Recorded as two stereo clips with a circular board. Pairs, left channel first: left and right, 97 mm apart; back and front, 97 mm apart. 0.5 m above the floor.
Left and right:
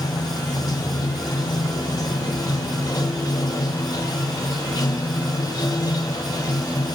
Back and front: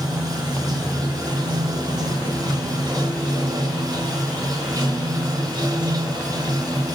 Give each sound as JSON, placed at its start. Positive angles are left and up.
{"t": 0.0, "sound": "running water", "azimuth_deg": 45, "distance_m": 1.1}